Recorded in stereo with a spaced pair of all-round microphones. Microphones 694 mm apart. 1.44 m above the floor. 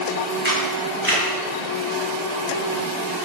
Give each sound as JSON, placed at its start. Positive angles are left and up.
{"t": 0.5, "sound": "a camera shutter", "side_deg": -15, "distance_m": 3.0}